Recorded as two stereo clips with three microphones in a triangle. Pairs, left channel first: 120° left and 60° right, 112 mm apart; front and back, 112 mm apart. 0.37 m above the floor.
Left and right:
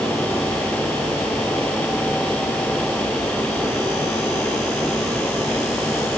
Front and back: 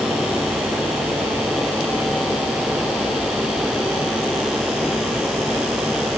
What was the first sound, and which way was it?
Only background noise.